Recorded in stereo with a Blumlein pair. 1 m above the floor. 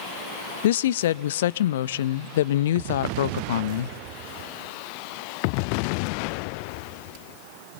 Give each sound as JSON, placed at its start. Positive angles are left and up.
{"t": 0.6, "sound": "a woman speaking", "azimuth_deg": 60, "distance_m": 0.5}